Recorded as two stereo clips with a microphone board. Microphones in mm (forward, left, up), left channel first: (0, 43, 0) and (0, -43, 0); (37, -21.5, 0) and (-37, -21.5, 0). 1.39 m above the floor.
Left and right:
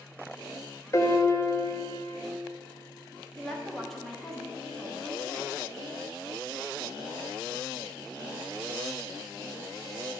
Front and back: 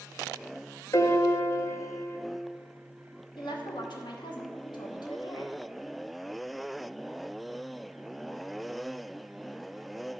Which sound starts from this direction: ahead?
A woman speaking, at 3.4 s.